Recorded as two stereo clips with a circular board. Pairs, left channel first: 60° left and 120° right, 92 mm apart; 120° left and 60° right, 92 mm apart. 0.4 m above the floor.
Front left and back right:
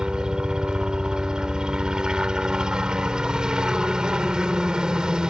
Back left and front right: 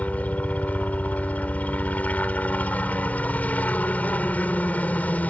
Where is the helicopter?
170° left.